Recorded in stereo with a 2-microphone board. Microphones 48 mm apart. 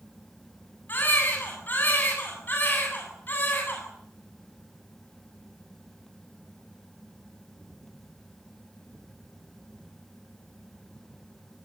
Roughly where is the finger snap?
No finger snap in this recording.